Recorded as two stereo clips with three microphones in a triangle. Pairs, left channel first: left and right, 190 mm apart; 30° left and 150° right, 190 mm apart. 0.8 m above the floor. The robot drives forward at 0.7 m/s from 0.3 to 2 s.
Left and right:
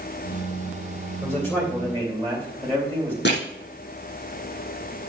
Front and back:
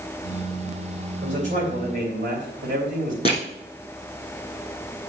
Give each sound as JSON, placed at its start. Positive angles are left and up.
{"t": 1.2, "sound": "a man speaking", "azimuth_deg": 165, "distance_m": 3.0}
{"t": 3.2, "sound": "crushing", "azimuth_deg": 85, "distance_m": 5.5}